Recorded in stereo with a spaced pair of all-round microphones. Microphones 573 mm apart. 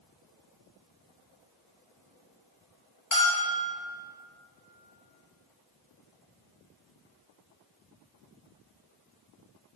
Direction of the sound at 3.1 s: 65° left (ahead or behind).